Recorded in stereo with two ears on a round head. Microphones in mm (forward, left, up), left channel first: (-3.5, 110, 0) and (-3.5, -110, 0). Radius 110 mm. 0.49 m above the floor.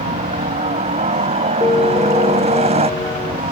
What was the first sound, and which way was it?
A helicopter, 25° right (ahead or behind).